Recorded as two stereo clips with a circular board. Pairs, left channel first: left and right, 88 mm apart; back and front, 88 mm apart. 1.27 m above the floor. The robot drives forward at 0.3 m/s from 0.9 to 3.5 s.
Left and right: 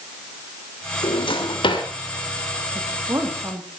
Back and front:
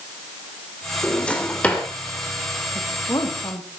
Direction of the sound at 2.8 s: 140° right.